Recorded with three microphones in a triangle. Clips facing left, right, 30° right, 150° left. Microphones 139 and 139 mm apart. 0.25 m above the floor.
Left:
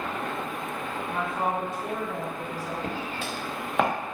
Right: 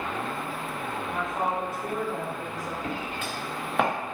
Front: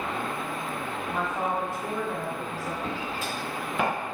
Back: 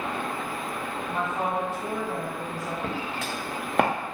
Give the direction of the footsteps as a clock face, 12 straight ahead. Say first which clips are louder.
Even, back 1 dB; 8 o'clock.